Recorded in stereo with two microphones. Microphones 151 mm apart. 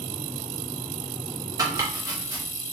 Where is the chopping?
25° right (ahead or behind), 0.7 m.